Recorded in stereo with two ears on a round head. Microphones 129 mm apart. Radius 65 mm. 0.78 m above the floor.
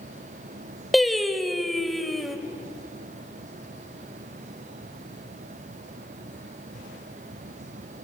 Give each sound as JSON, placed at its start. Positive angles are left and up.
{"t": 0.9, "sound": "singing", "side_deg": 0, "distance_m": 1.1}